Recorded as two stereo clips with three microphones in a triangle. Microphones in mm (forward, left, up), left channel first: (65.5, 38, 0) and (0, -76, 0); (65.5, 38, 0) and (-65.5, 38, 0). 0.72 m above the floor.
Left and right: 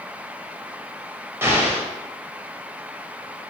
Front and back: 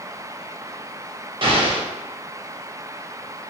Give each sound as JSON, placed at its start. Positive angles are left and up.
{"t": 1.4, "sound": "an explosion", "azimuth_deg": 180, "distance_m": 0.5}